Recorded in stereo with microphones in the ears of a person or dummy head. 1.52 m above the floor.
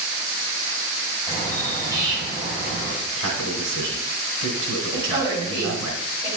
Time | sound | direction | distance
1.3 | a bird | 15° left (ahead or behind) | 2 m
3.0 | a man speaking | 70° right (ahead or behind) | 3 m
4.9 | a woman speaking | 15° right (ahead or behind) | 3.5 m